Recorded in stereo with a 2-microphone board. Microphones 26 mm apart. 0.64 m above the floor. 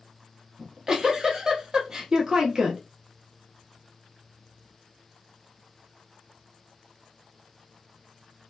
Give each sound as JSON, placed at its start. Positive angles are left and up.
{"t": 0.6, "sound": "a giggle", "side_deg": -20, "distance_m": 0.8}